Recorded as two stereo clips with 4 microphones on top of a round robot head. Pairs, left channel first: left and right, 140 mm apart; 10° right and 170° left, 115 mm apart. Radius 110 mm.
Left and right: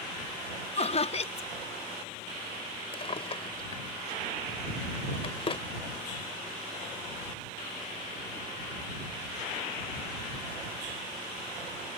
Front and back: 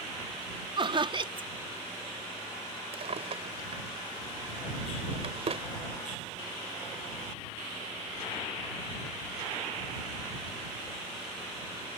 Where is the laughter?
130° left.